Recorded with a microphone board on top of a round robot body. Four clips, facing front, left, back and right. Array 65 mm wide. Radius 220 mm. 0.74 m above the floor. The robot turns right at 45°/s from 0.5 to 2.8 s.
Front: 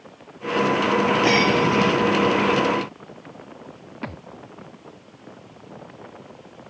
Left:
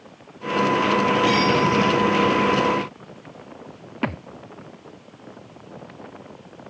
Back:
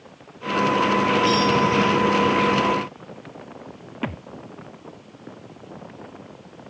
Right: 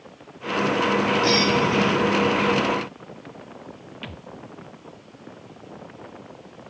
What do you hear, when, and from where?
1.2 s breaking glass: 5° right; by 2.0 s 25° left
4.0 s a thud: 100° left